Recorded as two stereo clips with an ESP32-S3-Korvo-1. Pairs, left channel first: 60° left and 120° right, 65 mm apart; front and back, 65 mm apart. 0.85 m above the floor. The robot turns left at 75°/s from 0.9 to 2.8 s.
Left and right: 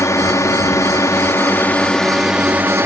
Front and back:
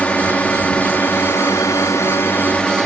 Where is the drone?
65° left; by 2.9 s 80° right.